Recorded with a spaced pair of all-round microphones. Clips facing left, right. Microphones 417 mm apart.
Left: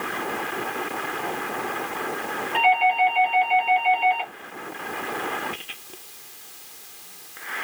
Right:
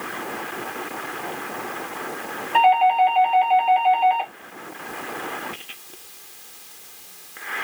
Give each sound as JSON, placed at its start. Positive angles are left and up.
{"t": 2.5, "sound": "a doorbell", "side_deg": -5, "distance_m": 2.5}